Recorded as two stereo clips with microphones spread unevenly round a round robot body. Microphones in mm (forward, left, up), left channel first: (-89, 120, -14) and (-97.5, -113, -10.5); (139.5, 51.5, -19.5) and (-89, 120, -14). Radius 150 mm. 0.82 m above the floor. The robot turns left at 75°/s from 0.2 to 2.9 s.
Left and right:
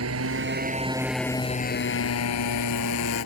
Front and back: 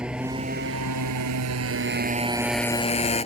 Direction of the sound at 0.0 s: 110° right.